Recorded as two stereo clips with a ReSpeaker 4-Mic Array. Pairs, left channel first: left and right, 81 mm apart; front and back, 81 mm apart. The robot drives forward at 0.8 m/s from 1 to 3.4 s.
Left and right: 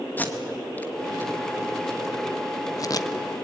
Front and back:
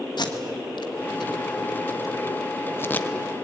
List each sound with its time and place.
0.2 s tape being pulled: 20° left, 2 m; by 3.1 s 70° left, 1.0 m